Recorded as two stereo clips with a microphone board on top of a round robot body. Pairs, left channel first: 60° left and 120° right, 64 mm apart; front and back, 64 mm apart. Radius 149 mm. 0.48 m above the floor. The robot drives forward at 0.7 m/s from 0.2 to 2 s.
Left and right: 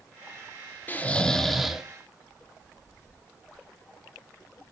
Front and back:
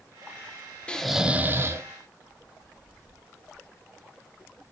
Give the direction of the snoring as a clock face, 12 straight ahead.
10 o'clock.